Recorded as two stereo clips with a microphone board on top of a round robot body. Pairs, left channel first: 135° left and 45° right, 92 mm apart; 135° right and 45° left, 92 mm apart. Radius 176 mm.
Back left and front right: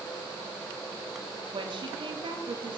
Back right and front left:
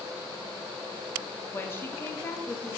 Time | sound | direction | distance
1.5 | a woman speaking | 70° right | 2 m